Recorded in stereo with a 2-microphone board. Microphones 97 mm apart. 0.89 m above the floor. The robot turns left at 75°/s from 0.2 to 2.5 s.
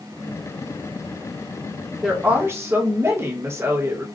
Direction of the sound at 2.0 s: Straight ahead.